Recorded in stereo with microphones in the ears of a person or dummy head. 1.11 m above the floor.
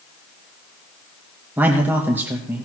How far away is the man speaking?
About 0.9 m.